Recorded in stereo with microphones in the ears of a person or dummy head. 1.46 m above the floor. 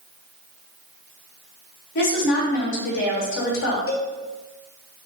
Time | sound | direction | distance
1.9 | a woman speaking | 65° left (ahead or behind) | 1.0 m
3.9 | a cowbell | 60° left (ahead or behind) | 0.7 m